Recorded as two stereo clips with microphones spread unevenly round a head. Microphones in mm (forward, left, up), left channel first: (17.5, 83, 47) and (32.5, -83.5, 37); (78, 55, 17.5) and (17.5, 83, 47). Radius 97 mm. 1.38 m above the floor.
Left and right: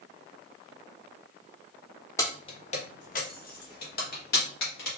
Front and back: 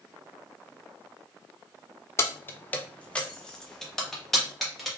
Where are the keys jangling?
40° left, 0.5 m; by 4.9 s 70° left, 1.7 m.